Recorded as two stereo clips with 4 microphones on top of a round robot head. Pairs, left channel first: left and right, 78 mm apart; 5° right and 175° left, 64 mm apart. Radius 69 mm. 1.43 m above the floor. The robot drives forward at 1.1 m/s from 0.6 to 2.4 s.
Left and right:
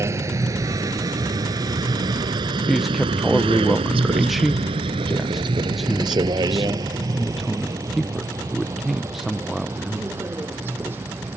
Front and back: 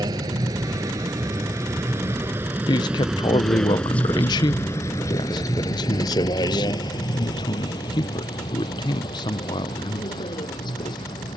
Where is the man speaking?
Straight ahead.